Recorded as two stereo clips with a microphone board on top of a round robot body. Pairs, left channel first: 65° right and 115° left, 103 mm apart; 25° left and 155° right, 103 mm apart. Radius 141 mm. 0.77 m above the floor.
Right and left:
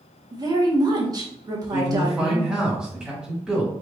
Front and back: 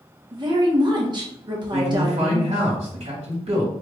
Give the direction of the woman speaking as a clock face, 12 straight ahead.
7 o'clock.